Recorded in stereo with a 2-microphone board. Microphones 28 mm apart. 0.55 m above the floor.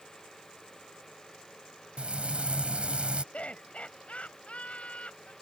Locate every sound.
2.0 s frying: 45° right (ahead or behind)
3.3 s laughter: 55° left (ahead or behind)